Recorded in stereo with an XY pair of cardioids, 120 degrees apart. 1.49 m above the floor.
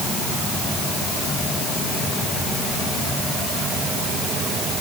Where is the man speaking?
I don't hear a man speaking.